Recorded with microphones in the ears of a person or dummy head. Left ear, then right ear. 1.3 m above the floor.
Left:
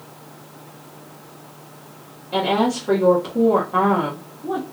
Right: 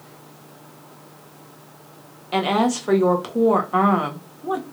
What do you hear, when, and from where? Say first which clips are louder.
2.3 s a woman speaking: left 1 dB; 50° right (ahead or behind), 0.9 m